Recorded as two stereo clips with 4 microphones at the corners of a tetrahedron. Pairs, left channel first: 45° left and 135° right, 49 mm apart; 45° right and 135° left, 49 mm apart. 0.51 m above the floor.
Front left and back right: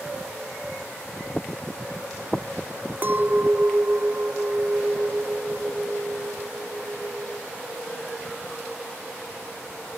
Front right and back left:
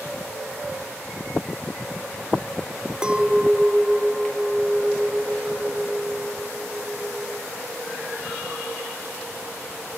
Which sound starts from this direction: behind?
A clink, at 3.0 s.